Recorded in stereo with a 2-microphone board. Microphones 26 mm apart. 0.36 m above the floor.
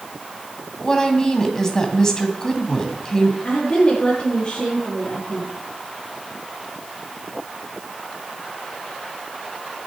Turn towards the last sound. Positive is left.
turn(degrees=45)  # may be behind; listen again after turning